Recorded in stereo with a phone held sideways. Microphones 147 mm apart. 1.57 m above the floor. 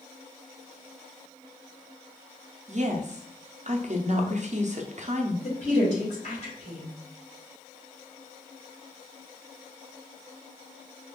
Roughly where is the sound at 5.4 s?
Left.